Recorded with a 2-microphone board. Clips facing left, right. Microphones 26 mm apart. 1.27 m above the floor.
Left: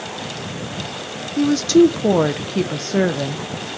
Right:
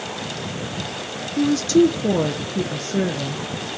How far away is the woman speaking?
About 0.8 m.